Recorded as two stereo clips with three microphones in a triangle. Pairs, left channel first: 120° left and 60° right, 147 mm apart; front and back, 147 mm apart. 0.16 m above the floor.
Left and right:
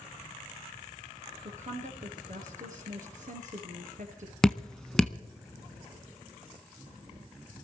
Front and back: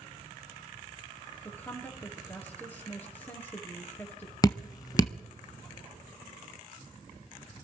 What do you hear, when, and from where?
1.4 s a woman speaking: 75° right, 3.5 m
4.4 s dripping: 40° left, 0.7 m